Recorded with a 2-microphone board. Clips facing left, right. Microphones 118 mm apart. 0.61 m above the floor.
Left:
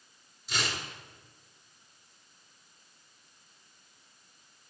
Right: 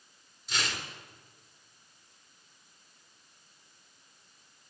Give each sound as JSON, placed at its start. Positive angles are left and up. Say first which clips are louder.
{"t": 0.5, "sound": "tearing paper", "louder": "left 1 dB", "side_deg": 0, "distance_m": 3.0}